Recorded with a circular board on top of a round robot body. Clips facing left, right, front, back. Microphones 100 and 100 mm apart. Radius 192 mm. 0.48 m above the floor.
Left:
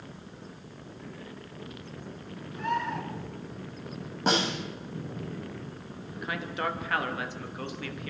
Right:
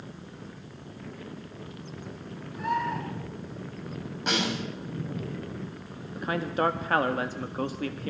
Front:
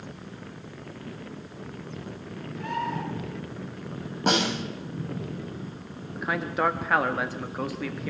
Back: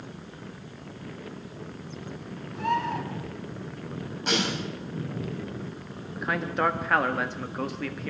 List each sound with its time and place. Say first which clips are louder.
2.5 s a bird: right 2 dB, back 3 dB; 175° right, 6 m
4.3 s a snare drum: left 2 dB, front 4 dB; 35° left, 6.5 m
6.2 s a man speaking: right 6 dB, even; 85° right, 1.5 m